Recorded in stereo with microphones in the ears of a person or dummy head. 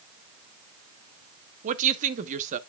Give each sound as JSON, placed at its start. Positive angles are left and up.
{"t": 1.6, "sound": "a woman speaking", "side_deg": -40, "distance_m": 0.8}